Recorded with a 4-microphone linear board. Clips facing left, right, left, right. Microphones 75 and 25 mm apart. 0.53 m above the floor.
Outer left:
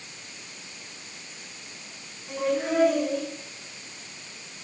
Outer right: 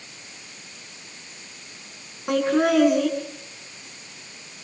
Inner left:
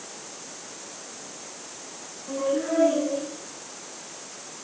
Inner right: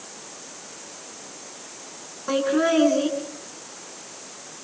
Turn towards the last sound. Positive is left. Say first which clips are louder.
# outer right 7 dB, inner right 5 dB
turn(degrees=-75)  # may be behind; listen again after turning